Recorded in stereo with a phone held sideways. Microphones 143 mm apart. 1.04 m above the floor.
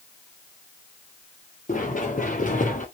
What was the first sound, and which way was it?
Running footsteps, 65° left (ahead or behind).